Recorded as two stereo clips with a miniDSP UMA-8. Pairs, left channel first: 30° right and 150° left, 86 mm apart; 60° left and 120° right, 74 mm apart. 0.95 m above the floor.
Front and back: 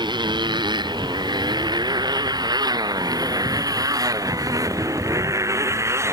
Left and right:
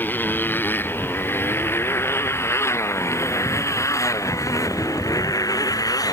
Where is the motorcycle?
125° left; by 6.1 s 95° left.